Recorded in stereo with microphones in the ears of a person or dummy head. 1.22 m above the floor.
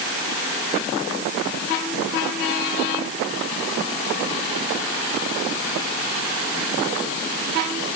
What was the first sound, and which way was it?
Only background noise.